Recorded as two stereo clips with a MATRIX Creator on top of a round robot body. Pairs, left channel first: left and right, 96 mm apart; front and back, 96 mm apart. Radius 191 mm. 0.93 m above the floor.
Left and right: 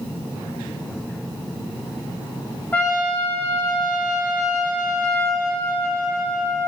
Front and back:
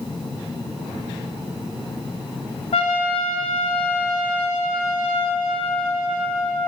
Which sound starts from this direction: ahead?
A trumpet, at 2.7 s.